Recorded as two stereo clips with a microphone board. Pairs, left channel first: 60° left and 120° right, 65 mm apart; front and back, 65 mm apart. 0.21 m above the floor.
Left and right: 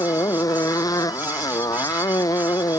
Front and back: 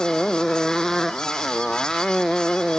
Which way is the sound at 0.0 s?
85° left.